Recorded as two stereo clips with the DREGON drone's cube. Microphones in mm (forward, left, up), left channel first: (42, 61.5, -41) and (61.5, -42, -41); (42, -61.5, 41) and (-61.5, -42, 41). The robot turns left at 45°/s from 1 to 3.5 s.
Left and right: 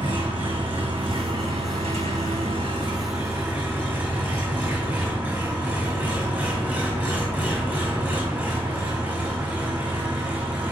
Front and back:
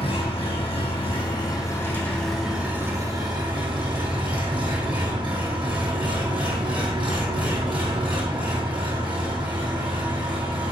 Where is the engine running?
40° right, 2.5 m; by 10.7 s 150° right, 2.5 m.